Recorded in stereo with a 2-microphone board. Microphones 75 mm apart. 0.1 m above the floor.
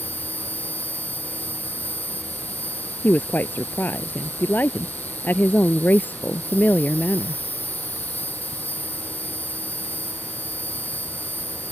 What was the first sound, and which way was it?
An insect, 20° left (ahead or behind).